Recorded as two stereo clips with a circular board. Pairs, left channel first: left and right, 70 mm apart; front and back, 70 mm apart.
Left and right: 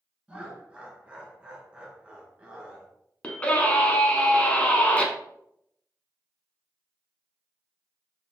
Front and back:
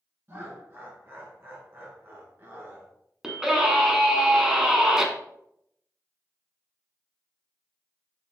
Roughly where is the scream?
Behind left.